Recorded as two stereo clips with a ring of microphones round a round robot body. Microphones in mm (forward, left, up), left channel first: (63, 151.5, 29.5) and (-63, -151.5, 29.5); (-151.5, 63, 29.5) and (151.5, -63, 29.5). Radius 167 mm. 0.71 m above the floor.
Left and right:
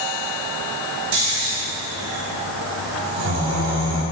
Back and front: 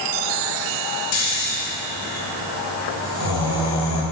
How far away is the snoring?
About 3.5 m.